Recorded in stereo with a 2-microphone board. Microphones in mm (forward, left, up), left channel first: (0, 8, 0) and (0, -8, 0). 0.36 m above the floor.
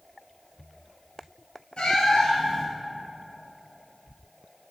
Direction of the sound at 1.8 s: 85° left.